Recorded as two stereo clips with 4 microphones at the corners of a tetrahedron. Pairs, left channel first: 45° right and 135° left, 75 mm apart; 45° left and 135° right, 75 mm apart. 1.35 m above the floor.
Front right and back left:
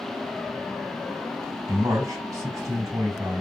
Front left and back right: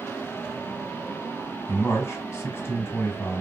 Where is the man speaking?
100° left, 2.5 m.